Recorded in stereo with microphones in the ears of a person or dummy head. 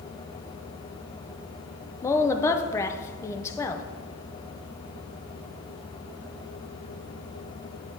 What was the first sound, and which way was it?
A woman speaking, 15° left (ahead or behind).